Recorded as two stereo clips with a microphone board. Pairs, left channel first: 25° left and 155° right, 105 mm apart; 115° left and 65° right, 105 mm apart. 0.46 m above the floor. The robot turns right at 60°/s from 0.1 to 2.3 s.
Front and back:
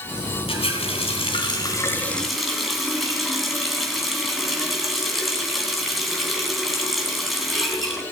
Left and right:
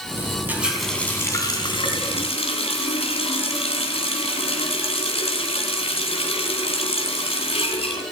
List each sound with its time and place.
0.5 s a running tap: 5° left, 2.5 m; by 8.0 s 110° left, 2.5 m